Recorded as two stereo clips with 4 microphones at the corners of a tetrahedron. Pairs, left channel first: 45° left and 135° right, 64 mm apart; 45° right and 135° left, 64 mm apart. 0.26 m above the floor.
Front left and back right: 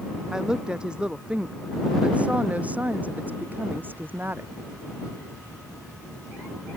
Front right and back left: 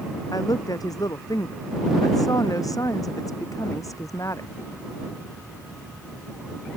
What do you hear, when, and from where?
0.3 s a woman speaking: 55° right; by 4.5 s 80° right